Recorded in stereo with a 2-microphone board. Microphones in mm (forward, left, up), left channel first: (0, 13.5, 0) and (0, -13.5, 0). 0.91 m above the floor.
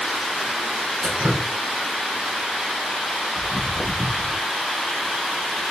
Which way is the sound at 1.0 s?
60° right (ahead or behind).